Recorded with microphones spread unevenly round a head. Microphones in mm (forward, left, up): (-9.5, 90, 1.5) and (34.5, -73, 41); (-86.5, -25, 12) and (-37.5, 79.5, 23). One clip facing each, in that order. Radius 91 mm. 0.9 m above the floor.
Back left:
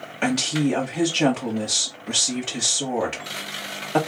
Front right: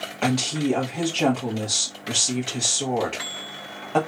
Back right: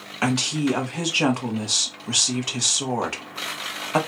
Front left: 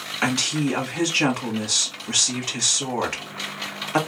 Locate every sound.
0.2 s a woman speaking: straight behind, 1.6 m